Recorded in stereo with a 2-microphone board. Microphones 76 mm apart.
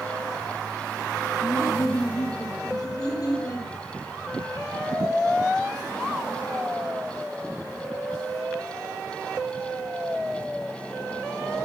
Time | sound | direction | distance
1.4 | laughter | 45° left (ahead or behind) | 2.5 m